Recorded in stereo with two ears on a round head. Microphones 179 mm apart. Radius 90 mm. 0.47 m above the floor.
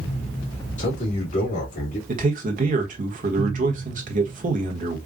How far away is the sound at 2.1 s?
About 1.2 m.